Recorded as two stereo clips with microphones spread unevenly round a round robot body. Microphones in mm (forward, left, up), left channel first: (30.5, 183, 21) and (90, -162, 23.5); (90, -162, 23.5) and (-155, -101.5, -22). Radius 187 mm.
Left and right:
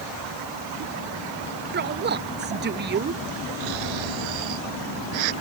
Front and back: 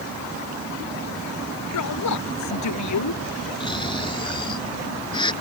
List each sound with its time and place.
1.7 s a woman speaking: 20° right
3.6 s snoring: 85° right